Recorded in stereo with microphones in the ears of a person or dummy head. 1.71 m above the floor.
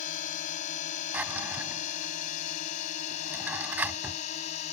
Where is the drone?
50° left (ahead or behind); by 4.7 s 40° left (ahead or behind).